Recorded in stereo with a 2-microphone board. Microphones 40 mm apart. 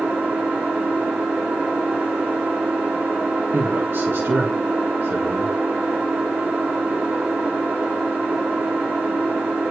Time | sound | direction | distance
0.0 | an engine running | 60° right (ahead or behind) | 6 m
3.5 | a man speaking | 85° right | 2 m